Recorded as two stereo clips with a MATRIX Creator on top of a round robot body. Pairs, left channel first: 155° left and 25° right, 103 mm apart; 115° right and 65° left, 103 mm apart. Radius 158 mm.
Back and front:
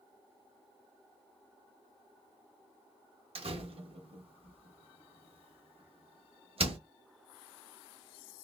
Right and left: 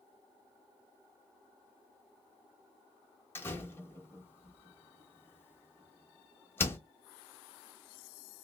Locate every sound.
3.4 s a door slam: 45° right, 1.5 m